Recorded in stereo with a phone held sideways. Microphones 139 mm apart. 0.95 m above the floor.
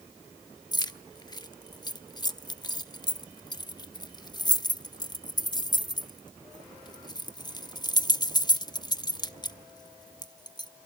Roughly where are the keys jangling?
Left.